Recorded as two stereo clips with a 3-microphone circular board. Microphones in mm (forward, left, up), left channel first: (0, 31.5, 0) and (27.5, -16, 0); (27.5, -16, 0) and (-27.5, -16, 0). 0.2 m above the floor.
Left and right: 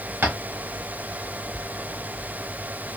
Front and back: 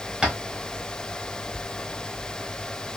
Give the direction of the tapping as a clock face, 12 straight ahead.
4 o'clock.